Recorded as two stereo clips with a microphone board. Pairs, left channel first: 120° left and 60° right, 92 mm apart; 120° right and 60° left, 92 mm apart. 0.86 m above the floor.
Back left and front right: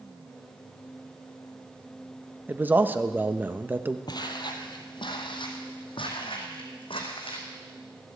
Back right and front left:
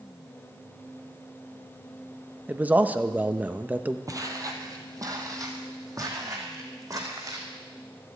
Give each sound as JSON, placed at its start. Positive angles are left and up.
{"t": 2.5, "sound": "a man speaking", "azimuth_deg": -5, "distance_m": 0.7}
{"t": 4.1, "sound": "footsteps", "azimuth_deg": 100, "distance_m": 1.4}